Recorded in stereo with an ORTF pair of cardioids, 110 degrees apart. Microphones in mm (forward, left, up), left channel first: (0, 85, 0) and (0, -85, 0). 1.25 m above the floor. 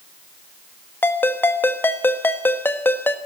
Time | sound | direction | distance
1.0 | a ringtone | 10° left | 1.5 m